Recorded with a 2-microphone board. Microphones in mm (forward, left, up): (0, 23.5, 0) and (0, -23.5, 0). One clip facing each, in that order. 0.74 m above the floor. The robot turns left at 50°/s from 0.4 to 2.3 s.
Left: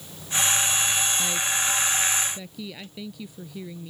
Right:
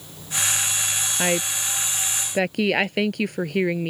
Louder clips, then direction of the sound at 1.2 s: Right 3 dB; 50° right.